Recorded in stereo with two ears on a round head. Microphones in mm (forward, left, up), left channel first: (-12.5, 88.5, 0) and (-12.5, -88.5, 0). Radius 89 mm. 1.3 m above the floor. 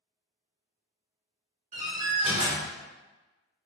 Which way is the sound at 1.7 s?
35° right (ahead or behind).